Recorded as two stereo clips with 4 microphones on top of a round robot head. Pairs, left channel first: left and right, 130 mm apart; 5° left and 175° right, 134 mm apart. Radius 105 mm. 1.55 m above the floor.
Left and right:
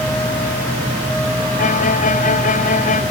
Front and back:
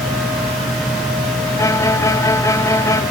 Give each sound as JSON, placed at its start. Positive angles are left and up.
{"t": 1.6, "sound": "a violin", "azimuth_deg": 70}